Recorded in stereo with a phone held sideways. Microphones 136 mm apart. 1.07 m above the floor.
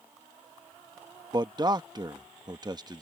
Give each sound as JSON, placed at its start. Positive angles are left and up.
{"t": 1.3, "sound": "a man speaking", "side_deg": -30}